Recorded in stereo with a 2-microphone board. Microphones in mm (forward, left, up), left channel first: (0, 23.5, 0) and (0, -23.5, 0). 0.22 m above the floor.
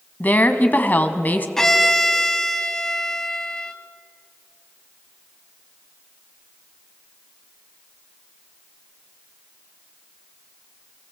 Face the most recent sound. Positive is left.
turn(degrees=10)  # may be behind; listen again after turning